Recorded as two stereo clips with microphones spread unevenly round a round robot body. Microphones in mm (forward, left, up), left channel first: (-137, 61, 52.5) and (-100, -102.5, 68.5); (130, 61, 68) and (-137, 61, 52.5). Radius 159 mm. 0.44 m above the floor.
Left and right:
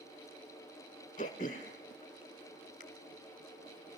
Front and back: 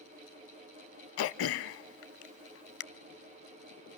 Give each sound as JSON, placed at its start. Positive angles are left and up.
{"t": 1.2, "sound": "throat clearing", "azimuth_deg": 35, "distance_m": 0.6}